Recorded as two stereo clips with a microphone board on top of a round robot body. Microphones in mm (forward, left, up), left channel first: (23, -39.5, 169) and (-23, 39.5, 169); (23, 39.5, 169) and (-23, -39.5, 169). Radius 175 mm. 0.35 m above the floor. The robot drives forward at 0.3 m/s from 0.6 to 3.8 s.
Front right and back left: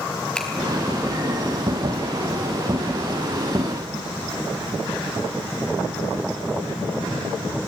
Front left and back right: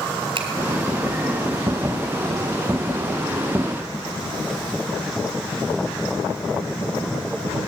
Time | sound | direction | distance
0.3 | a finger snap | 140° right | 4 m